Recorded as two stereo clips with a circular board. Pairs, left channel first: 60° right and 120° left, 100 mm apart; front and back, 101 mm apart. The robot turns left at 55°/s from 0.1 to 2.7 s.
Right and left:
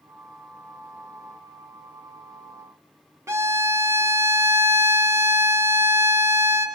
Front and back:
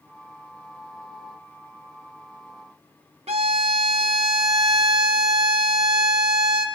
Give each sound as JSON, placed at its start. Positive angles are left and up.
{"t": 3.3, "sound": "a violin", "azimuth_deg": 180, "distance_m": 1.3}